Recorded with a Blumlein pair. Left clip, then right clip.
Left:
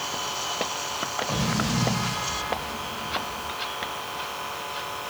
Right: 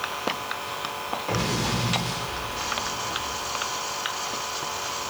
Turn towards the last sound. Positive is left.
turn(degrees=-45)